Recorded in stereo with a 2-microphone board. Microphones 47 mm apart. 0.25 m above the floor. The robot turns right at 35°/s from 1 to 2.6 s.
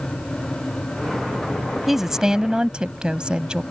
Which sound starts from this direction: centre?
A woman speaking, at 1.9 s.